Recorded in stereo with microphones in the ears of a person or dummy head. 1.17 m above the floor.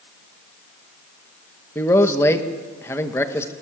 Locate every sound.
1.8 s a man speaking: 15° left (ahead or behind), 1.5 m